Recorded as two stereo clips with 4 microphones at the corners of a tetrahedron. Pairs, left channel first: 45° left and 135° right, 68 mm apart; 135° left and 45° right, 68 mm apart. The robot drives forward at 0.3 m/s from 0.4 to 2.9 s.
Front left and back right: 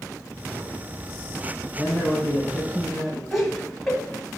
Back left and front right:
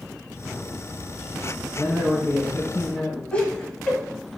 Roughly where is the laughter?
Behind left.